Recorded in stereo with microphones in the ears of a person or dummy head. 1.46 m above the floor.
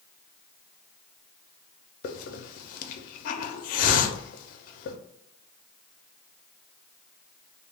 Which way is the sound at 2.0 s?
50° left (ahead or behind).